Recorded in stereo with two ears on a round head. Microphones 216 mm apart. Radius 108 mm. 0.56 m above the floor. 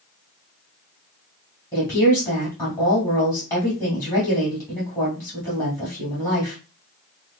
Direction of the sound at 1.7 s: 15° left (ahead or behind).